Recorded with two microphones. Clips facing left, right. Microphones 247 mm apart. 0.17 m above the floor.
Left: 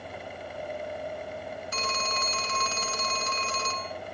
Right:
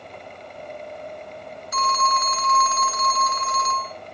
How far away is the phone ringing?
About 0.8 m.